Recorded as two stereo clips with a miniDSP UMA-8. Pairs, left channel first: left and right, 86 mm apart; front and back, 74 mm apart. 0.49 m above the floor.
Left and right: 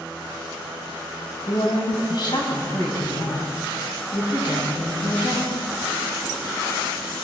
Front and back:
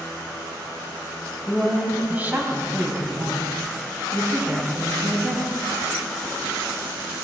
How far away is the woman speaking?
About 1.8 m.